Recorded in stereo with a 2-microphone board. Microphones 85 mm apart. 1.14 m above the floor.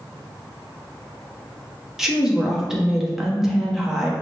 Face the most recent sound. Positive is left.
turn(degrees=-5)  # may be behind; listen again after turning